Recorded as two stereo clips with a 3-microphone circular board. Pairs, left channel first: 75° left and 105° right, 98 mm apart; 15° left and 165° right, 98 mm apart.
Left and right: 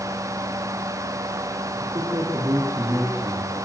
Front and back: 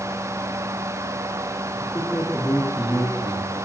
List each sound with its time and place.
1.8 s a man speaking: 60° right, 4.5 m; by 3.5 s 35° right, 5 m